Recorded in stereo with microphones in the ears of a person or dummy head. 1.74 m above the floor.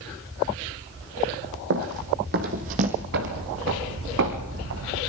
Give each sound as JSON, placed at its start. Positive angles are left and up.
{"t": 1.7, "sound": "running footsteps", "side_deg": -55, "distance_m": 3.5}
{"t": 3.1, "sound": "footsteps", "side_deg": -55, "distance_m": 3.5}